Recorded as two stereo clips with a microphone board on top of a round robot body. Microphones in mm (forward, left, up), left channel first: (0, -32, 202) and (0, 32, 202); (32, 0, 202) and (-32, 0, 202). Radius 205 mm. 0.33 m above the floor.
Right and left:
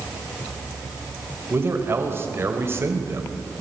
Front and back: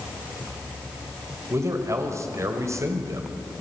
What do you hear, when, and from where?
1.5 s a man speaking: 140° left, 2.5 m